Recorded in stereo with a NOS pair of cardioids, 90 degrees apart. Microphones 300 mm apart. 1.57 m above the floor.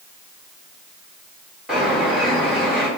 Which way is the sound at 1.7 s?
Straight ahead.